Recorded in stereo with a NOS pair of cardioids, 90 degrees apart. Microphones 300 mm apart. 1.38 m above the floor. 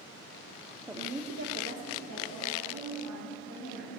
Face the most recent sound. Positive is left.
turn(degrees=-75)